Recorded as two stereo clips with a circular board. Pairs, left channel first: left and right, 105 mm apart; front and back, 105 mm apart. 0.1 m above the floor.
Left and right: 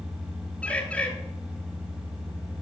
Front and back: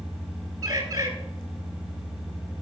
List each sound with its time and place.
0.6 s a bird: 160° left, 1.7 m